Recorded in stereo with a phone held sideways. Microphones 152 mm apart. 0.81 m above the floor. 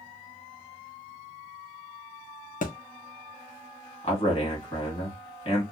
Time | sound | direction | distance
2.6 | a thud | 60° left (ahead or behind) | 0.6 m
4.0 | a man speaking | 40° left (ahead or behind) | 1.5 m